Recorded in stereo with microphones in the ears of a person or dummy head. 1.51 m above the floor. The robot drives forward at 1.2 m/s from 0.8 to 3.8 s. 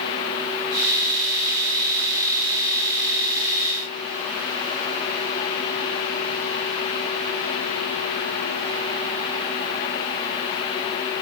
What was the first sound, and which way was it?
Only background noise.